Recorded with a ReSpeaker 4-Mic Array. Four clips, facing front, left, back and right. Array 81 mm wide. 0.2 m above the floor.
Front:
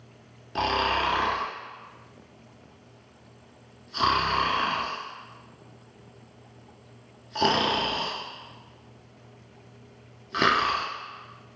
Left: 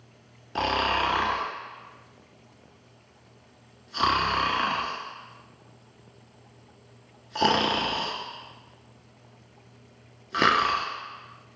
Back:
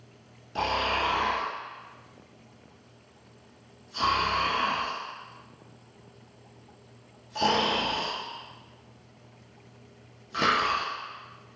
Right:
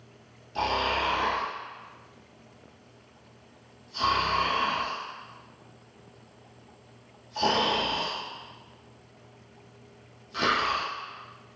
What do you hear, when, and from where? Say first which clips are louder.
0.6 s snoring: left 2 dB, front 2 dB; 60° left, 0.6 m